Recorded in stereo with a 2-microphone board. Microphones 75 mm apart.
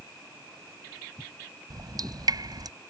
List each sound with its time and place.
1.7 s dripping: 60° right (ahead or behind)